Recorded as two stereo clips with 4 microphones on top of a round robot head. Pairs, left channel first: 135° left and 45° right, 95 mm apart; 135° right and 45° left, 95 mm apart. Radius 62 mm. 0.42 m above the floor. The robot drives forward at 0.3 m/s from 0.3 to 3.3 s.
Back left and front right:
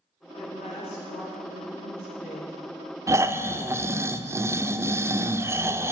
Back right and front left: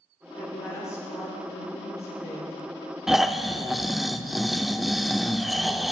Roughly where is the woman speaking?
Behind.